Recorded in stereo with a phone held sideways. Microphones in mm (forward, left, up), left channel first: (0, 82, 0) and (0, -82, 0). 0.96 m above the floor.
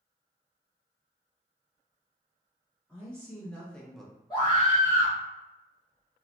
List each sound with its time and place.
2.9 s a man speaking: 10° left (ahead or behind), 1.4 m; by 4.1 s centre (ahead or behind), 0.8 m
4.3 s a scream: 25° left (ahead or behind), 0.9 m